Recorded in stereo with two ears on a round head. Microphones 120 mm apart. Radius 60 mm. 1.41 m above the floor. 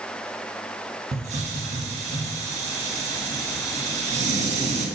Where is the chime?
I don't hear a chime.